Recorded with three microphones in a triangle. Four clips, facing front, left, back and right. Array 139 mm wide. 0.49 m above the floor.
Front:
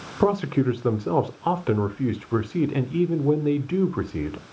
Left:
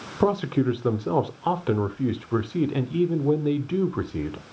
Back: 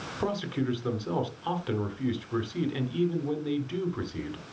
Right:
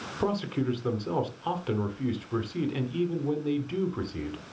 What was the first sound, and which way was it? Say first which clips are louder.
A man speaking: left 7 dB, front 9 dB; 35° left.